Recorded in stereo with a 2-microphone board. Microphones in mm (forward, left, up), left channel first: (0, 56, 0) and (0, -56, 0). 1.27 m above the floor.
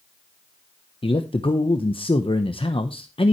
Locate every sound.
1.0 s a man speaking: 55° left (ahead or behind), 1.0 m